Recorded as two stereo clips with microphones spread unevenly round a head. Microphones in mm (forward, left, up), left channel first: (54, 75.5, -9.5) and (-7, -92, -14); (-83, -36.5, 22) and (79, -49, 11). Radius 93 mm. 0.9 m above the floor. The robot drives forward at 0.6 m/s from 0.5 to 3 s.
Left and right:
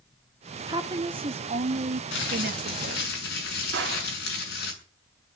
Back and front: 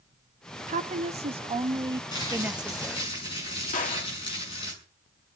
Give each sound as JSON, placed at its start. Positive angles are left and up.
{"t": 0.7, "sound": "a woman speaking", "azimuth_deg": -45, "distance_m": 1.7}
{"t": 2.1, "sound": "crumpling", "azimuth_deg": 105, "distance_m": 7.0}
{"t": 3.7, "sound": "a gunshot", "azimuth_deg": -145, "distance_m": 2.5}